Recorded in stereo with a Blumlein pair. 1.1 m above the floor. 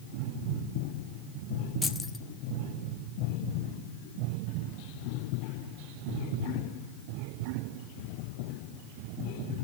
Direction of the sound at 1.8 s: 10° left.